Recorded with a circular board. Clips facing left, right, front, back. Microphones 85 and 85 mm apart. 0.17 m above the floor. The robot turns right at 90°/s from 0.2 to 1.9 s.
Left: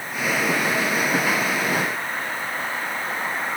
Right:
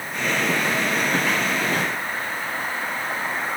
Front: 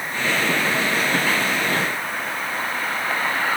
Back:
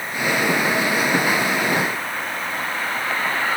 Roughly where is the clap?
I don't hear a clap.